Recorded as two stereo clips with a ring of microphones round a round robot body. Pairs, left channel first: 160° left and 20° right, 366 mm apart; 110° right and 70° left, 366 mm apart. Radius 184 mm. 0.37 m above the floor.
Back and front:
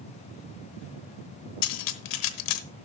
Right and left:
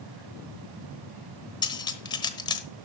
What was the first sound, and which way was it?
Cutlery clinking, 170° left.